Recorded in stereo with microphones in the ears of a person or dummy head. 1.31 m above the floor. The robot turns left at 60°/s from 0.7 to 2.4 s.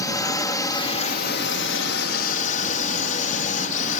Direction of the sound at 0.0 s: 155° left.